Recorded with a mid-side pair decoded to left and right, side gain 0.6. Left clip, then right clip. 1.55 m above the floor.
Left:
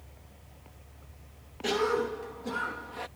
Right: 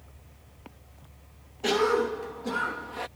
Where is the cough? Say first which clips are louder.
Right 4 dB; 25° right.